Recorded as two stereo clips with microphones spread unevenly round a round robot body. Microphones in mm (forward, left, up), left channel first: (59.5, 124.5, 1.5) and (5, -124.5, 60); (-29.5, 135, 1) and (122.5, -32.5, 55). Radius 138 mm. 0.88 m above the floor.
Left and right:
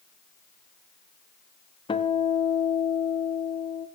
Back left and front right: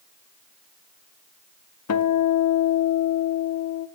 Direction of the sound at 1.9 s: 155° left.